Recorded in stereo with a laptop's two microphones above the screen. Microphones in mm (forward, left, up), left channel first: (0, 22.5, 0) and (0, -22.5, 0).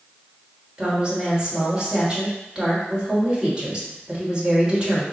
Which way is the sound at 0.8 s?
20° right (ahead or behind).